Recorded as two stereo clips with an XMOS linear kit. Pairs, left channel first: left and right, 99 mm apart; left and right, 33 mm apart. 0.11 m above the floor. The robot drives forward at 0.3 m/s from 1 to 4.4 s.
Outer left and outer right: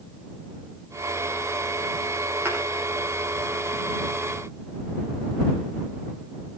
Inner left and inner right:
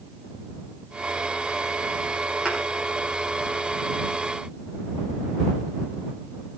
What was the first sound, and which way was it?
A thud, 20° right (ahead or behind).